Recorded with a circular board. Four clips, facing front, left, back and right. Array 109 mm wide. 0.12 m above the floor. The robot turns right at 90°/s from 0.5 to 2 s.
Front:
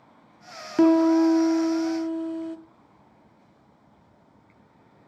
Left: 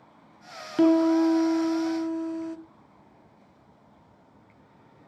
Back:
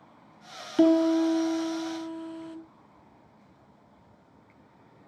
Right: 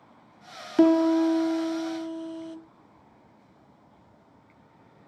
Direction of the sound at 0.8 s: 30° right.